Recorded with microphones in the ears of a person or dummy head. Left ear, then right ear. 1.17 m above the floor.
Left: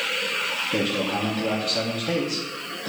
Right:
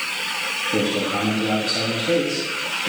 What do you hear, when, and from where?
0.7 s a man speaking: 25° left (ahead or behind), 2.5 m